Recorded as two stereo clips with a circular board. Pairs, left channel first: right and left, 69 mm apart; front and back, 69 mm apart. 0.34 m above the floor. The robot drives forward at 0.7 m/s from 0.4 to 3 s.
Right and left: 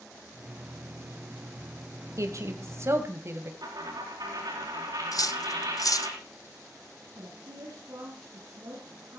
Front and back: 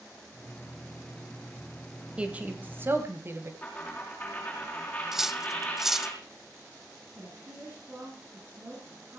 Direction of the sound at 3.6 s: 70° left.